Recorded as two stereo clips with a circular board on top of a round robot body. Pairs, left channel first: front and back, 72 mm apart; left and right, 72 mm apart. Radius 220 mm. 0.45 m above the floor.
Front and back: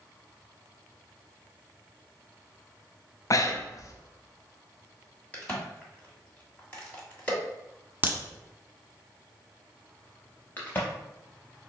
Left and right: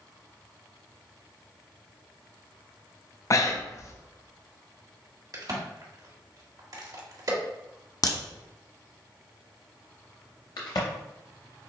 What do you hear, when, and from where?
3.3 s breathing: 45° left, 0.6 m
5.3 s a crack: 70° right, 2 m
8.0 s a crack: 115° left, 1.2 m
10.6 s a crack: 65° left, 0.6 m